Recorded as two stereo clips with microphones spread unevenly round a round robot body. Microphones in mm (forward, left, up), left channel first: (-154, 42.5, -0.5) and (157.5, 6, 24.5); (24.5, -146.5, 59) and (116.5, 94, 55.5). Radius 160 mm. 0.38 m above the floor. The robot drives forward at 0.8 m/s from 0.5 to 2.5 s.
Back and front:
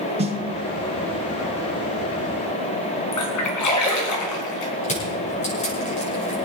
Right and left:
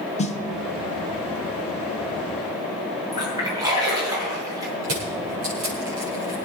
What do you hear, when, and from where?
0.2 s a snare drum: 70° right, 1.3 m
3.1 s a splash: 145° left, 3.5 m
4.8 s crushing: 105° left, 6.5 m